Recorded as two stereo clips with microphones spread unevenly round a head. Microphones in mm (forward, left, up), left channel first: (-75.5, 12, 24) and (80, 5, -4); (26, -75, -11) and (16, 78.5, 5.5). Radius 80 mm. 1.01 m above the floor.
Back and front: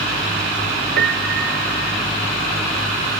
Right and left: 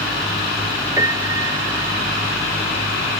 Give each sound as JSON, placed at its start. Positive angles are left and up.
{"t": 1.0, "sound": "a piano", "azimuth_deg": 25}